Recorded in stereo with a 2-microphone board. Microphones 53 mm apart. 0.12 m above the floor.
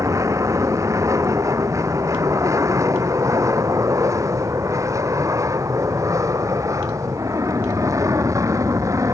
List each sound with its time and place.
0.0 s an aircraft: 70° right (ahead or behind); by 9.1 s 75° right (ahead or behind)